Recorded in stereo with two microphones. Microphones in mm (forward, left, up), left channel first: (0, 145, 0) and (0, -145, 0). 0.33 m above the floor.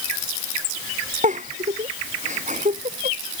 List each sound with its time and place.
1.2 s a giggle: 25° right (ahead or behind)